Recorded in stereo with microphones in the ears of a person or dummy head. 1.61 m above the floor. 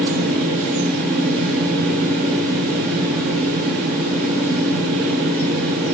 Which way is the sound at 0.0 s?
20° right (ahead or behind).